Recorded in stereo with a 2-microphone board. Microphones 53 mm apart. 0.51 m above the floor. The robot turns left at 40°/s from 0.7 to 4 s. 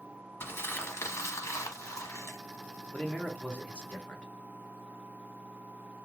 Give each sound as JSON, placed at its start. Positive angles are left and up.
{"t": 0.4, "sound": "crumpling", "azimuth_deg": 130, "distance_m": 1.0}
{"t": 2.9, "sound": "a man speaking", "side_deg": 15, "distance_m": 0.8}